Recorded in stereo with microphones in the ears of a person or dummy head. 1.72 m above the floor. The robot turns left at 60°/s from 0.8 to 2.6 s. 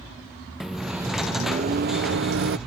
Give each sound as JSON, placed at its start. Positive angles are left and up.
{"t": 0.6, "sound": "a microwave", "azimuth_deg": -5}